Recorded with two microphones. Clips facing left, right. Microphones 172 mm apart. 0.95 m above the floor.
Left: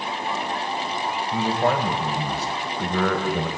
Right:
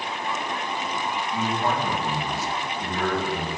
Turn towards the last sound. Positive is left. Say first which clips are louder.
# left 5 dB
turn(degrees=70)  # may be behind; listen again after turning